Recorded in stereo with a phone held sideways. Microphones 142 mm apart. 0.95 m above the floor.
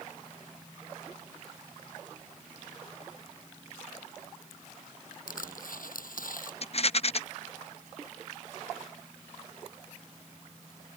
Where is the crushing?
80° left.